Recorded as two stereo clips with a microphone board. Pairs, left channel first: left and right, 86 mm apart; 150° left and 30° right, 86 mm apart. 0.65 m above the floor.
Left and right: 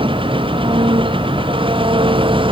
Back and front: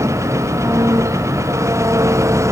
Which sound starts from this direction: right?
An engine running, at 0.0 s.